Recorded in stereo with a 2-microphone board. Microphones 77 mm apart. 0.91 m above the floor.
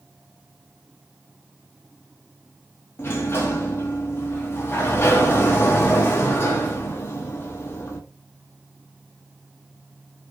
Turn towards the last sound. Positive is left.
turn(degrees=30)  # may be behind; listen again after turning